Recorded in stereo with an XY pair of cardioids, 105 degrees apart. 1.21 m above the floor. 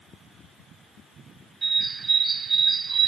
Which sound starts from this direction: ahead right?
A bird, at 1.6 s.